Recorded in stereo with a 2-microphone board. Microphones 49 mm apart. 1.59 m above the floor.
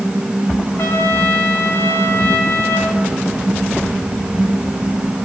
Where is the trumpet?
65° left (ahead or behind), 2.5 m.